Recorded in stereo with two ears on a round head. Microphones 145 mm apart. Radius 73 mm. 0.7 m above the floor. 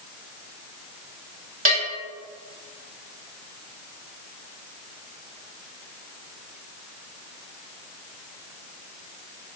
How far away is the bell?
About 1.7 m.